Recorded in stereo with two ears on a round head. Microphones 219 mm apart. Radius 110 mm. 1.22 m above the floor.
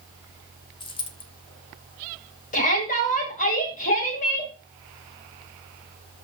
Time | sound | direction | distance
0.8 | a dropped coin | 20° left (ahead or behind) | 1.4 m
2.5 | a shout | 35° left (ahead or behind) | 6.5 m